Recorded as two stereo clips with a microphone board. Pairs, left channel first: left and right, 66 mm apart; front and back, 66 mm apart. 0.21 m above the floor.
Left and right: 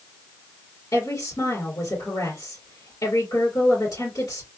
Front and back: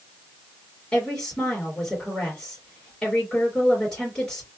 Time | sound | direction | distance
0.9 | a woman speaking | 75° left | 2.5 m